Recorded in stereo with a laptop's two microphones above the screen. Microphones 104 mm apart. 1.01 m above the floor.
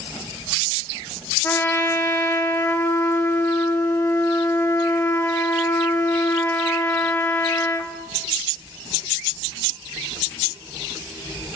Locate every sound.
1.4 s a trumpet: 20° left (ahead or behind), 0.5 m